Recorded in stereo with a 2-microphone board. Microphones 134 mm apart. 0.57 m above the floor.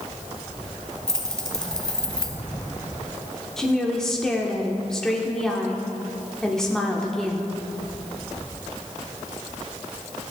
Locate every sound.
1.1 s keys jangling: 5° left (ahead or behind), 1.3 m
3.6 s a woman speaking: 5° left (ahead or behind), 1.2 m